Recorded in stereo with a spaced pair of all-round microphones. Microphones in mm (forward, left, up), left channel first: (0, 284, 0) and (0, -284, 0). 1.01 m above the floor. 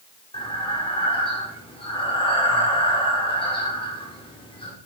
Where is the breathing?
10° left (ahead or behind), 3 m.